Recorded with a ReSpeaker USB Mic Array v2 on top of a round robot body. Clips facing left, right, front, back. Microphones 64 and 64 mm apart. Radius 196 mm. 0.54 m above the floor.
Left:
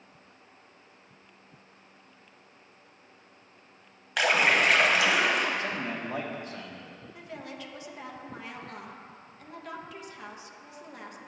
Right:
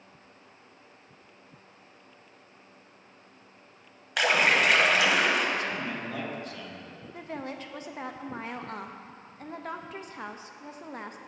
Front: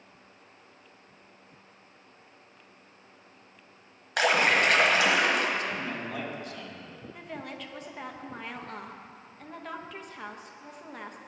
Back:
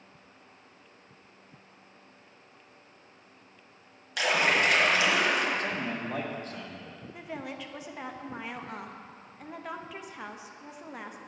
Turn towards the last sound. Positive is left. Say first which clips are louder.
# right 5 dB, back 2 dB
turn(degrees=-100)